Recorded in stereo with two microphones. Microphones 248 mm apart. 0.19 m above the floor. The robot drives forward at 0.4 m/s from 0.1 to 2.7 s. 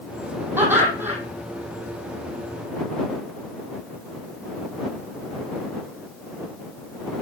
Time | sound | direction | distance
0.6 | laughter | 10° right (ahead or behind) | 8.5 m